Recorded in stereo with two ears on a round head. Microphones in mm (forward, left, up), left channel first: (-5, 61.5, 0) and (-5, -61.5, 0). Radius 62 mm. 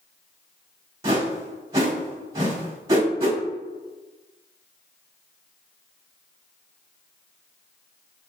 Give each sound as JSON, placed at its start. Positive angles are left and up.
{"t": 1.0, "sound": "a whoosh", "side_deg": -25, "distance_m": 1.0}